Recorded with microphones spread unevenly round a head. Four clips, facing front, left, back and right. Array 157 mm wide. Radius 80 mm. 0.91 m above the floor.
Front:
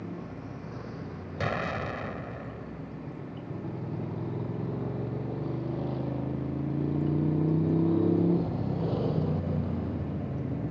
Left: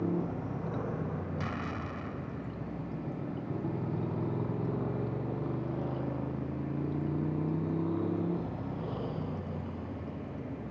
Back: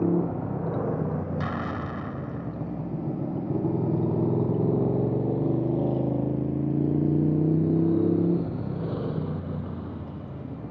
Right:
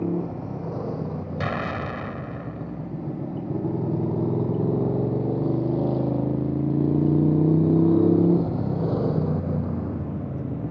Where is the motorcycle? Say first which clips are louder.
Right 6 dB, back 14 dB; 155° right; by 10.7 s 85° right.